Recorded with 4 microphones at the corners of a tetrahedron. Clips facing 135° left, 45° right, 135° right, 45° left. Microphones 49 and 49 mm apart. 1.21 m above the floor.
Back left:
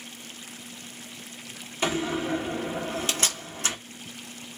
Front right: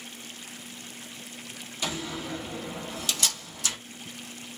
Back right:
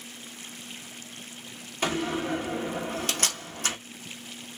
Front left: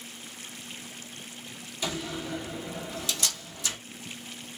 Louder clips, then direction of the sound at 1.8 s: Back left 7 dB, back right 6 dB; 175° right.